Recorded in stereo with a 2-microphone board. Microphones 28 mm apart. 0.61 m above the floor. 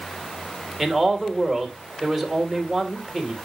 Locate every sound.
0.8 s a man speaking: 5° left (ahead or behind), 2.5 m